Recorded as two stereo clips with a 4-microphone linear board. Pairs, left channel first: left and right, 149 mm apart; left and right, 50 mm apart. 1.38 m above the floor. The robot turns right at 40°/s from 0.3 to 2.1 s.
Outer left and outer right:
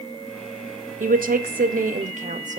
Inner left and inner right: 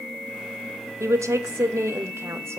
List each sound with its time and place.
1.0 s a woman speaking: 105° right, 0.6 m; by 2.6 s 65° right, 0.6 m